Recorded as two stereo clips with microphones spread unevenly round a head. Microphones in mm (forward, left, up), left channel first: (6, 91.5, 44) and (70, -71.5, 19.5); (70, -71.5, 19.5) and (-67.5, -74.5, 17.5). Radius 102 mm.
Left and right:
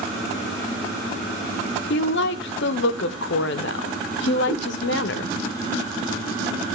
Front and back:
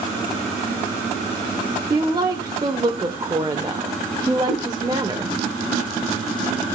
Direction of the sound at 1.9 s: 110° left.